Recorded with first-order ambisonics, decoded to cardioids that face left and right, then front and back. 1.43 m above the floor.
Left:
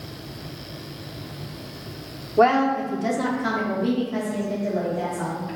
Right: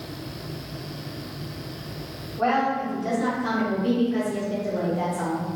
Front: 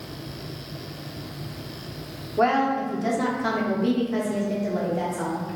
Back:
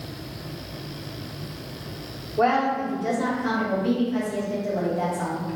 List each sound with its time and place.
2.4 s a woman speaking: 70° left, 1.0 m; by 5.5 s 5° left, 2.0 m